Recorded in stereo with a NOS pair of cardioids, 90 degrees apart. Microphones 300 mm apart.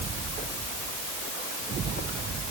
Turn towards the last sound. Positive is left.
No sound to turn to.